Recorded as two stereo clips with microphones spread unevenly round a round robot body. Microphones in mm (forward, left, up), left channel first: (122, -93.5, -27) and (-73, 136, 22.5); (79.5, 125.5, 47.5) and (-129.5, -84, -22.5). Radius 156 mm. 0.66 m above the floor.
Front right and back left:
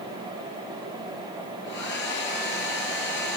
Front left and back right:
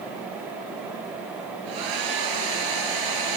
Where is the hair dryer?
110° right, 2.5 m.